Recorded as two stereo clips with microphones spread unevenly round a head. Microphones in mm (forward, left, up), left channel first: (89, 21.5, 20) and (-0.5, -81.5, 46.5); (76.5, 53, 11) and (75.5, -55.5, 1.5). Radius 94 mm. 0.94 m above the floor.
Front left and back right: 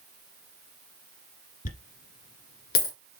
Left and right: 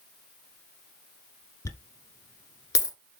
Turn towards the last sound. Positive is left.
turn(degrees=55)